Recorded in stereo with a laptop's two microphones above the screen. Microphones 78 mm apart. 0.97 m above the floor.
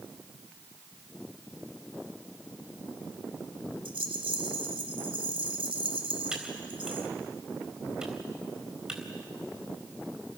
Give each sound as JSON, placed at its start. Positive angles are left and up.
{"t": 3.9, "sound": "a rattle", "side_deg": -80, "distance_m": 1.4}
{"t": 6.3, "sound": "typing on a keyboard", "side_deg": -10, "distance_m": 4.0}